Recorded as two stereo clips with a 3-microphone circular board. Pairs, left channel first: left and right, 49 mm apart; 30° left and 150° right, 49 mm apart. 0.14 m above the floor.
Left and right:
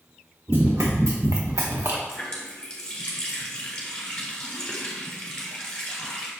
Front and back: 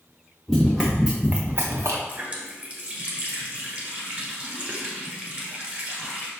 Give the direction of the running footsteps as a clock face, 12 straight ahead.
2 o'clock.